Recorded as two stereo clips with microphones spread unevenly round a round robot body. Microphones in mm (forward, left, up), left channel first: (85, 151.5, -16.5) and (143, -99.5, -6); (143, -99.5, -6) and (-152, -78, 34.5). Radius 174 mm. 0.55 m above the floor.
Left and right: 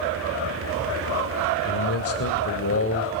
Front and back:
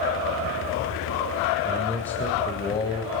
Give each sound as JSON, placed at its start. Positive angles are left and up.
{"t": 1.6, "sound": "a man speaking", "azimuth_deg": 85, "distance_m": 1.6}